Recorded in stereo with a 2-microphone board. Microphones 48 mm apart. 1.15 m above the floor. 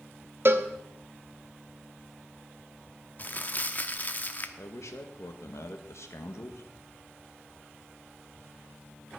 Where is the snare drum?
I don't hear a snare drum.